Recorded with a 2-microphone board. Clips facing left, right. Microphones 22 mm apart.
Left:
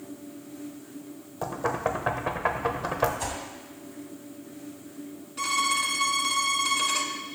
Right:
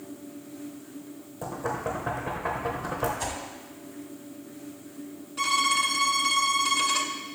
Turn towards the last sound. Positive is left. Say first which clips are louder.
# right 2 dB
turn(degrees=-5)  # may be behind; listen again after turning